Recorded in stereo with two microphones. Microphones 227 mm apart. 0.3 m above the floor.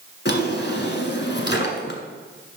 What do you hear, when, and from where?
0.2 s a drawer: 50° left (ahead or behind), 1.4 m